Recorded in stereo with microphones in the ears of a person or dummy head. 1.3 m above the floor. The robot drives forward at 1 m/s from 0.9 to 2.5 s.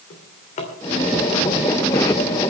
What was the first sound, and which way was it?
A drawer, 45° left (ahead or behind).